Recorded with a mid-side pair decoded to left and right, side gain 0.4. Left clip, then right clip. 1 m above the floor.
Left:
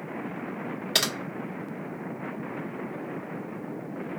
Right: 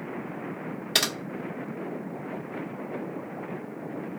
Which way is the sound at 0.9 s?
5° right.